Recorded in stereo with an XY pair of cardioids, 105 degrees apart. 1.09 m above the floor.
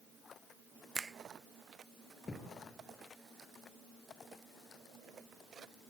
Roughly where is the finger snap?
Ahead right.